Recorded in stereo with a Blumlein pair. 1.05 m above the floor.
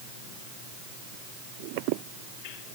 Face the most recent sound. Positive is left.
No sound to turn to.